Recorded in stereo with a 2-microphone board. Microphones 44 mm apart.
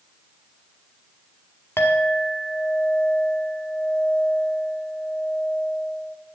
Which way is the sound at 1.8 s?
70° left (ahead or behind).